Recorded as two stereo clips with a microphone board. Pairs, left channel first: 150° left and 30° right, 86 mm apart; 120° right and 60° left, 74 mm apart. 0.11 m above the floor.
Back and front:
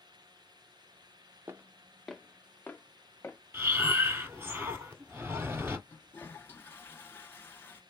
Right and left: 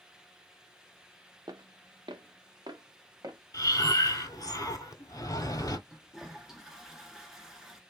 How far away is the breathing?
About 0.8 m.